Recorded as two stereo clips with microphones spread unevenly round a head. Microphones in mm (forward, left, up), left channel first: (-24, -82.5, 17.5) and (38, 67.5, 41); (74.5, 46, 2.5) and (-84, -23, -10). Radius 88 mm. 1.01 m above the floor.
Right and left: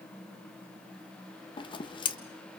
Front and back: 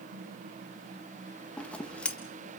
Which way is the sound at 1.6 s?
60° right.